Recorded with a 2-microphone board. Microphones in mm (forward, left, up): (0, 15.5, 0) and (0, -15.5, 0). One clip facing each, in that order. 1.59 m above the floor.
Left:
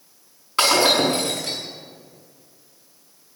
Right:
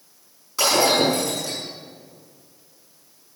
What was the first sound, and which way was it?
Breaking glass, 45° left (ahead or behind).